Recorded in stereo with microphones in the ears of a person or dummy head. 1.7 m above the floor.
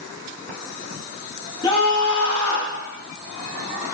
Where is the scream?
25° left (ahead or behind), 2.5 m.